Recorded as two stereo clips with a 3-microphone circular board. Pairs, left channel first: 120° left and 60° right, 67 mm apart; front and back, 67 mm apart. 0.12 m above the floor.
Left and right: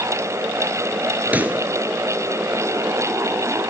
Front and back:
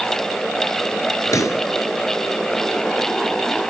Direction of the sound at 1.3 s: Straight ahead.